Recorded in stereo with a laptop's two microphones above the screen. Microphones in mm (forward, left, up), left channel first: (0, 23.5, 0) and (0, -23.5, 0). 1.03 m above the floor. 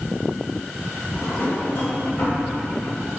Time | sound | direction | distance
1.1 | a drawer | 50° left (ahead or behind) | 3 m